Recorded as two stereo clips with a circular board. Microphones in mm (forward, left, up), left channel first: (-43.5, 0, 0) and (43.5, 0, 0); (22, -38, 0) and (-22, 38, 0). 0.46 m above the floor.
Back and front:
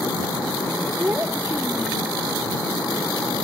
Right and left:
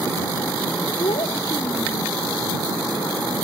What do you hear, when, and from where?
1.0 s a child speaking: 65° right